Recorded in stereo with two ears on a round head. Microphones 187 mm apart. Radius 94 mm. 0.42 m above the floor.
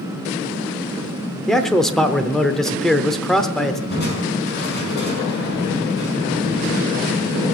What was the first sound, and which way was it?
A man speaking, centre (ahead or behind).